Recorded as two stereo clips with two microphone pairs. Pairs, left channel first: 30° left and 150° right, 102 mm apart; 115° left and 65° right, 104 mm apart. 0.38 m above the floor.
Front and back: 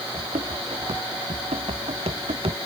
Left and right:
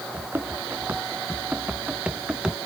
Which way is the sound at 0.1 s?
135° right.